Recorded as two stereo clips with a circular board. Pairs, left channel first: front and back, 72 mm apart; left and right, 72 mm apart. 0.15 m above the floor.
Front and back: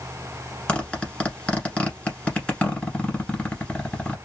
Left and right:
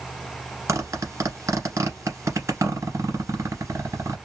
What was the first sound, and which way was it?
A zipper, 70° right.